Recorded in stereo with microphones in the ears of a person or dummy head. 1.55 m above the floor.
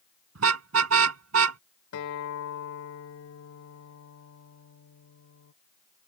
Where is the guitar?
70° left (ahead or behind).